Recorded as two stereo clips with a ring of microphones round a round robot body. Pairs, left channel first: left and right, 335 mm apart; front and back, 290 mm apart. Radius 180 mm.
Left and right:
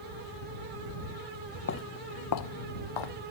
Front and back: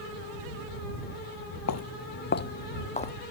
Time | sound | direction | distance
1.7 | footsteps | 35° left | ?